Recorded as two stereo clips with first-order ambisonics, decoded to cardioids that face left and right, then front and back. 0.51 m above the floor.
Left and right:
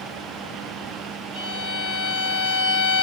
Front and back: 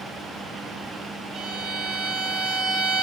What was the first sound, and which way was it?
A violin, 140° right.